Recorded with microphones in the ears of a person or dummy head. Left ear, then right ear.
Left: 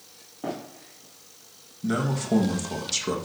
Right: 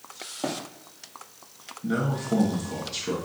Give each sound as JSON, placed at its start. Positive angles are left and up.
{"t": 0.4, "sound": "running footsteps", "side_deg": -30, "distance_m": 2.5}
{"t": 1.8, "sound": "a man speaking", "side_deg": 80, "distance_m": 1.5}